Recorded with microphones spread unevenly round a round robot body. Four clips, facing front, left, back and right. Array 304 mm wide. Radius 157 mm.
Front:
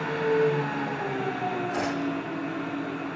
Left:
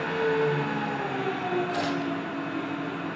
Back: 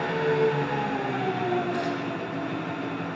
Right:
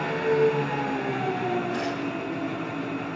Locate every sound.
0.0 s an engine running: 125° right, 5.5 m
1.7 s tearing paper: 20° left, 0.9 m